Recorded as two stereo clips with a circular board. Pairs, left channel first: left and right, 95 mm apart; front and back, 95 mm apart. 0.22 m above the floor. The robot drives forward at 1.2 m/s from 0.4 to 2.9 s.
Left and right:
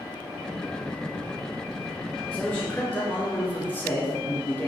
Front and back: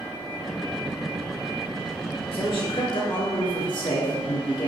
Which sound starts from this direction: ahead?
A man speaking, at 2.3 s.